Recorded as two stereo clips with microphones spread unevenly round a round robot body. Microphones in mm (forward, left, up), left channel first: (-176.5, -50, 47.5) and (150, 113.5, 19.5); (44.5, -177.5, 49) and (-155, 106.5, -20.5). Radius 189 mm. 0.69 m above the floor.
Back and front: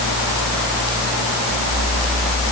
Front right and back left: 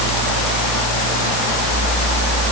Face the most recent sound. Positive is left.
No sound to turn to.